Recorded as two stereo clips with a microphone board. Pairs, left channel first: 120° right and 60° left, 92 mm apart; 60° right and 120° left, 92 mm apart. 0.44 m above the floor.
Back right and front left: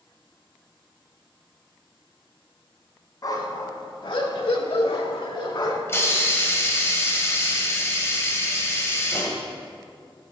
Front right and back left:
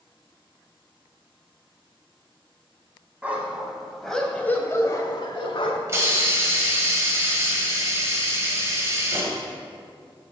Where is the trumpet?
No trumpet in this recording.